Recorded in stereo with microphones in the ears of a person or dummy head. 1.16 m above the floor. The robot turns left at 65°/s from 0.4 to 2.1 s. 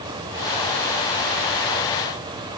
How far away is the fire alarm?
No fire alarm in this recording.